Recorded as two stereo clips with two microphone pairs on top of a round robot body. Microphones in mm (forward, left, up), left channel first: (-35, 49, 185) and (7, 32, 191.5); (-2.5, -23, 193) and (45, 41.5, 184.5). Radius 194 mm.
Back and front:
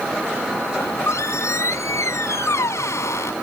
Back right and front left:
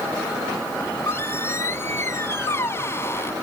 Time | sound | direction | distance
0.8 | a squeak | straight behind | ?